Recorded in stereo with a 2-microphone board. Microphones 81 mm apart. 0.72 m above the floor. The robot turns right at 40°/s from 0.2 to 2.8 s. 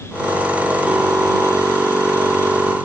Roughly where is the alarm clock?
No alarm clock in this recording.